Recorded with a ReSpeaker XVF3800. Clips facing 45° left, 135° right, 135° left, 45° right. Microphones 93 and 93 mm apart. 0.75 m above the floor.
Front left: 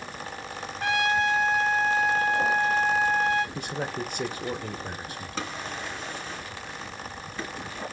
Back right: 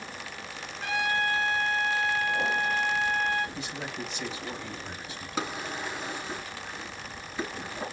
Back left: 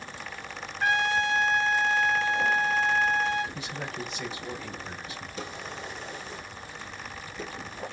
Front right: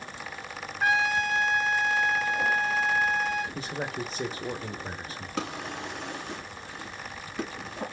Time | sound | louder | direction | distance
0.8 | a trumpet | front left 4 dB, even | 40° left | 2.5 m
3.5 | a man speaking | front left 5 dB, front right 3 dB | 5° left | 2.5 m
5.4 | a drawer | back right 2 dB, front right 5 dB | 55° right | 3 m